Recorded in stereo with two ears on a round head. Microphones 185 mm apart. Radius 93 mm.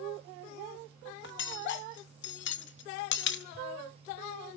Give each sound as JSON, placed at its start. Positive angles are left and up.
{"t": 1.2, "sound": "cutlery clinking", "side_deg": 60, "distance_m": 0.9}